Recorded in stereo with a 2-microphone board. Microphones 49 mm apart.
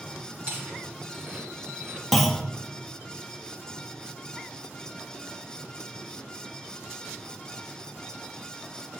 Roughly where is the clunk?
Centre.